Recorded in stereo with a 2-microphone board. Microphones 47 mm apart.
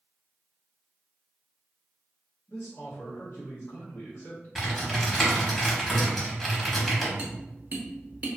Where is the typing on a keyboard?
5° left (ahead or behind), 0.8 m.